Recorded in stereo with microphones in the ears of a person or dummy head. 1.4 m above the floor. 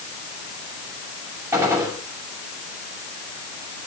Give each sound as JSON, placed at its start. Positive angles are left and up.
{"t": 1.5, "sound": "a gunshot", "side_deg": -10, "distance_m": 6.0}